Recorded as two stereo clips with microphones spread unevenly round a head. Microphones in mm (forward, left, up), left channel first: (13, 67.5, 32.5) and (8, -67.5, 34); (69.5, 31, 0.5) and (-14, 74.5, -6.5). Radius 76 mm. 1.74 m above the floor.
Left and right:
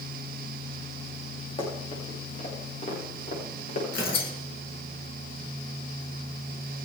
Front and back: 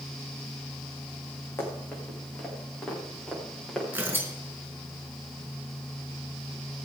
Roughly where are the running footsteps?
Ahead left.